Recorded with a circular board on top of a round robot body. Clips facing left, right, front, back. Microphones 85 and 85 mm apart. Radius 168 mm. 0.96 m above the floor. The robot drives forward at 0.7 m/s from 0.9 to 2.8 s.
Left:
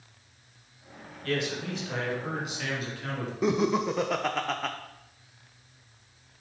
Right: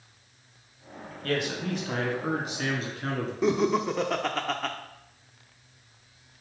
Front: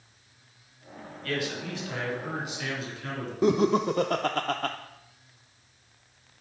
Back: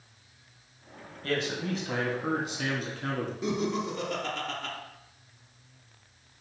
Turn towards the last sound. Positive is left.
turn(degrees=0)